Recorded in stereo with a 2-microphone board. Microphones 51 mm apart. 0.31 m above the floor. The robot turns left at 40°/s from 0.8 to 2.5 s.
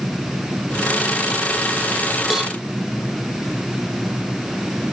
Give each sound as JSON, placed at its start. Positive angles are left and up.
{"t": 2.3, "sound": "a cowbell", "side_deg": -5, "distance_m": 0.7}